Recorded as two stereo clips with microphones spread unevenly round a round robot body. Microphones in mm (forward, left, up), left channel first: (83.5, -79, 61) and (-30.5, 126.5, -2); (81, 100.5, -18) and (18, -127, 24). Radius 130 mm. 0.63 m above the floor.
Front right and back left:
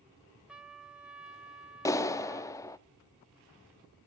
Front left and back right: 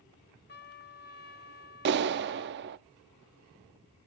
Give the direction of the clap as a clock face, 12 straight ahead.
5 o'clock.